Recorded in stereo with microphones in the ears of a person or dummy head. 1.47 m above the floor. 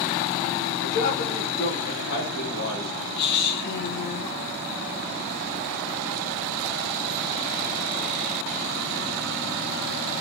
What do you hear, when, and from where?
0.8 s a man speaking: 45° left (ahead or behind), 3.5 m; by 3.1 s 70° left (ahead or behind), 6 m
3.2 s a woman speaking: 55° left (ahead or behind), 1.8 m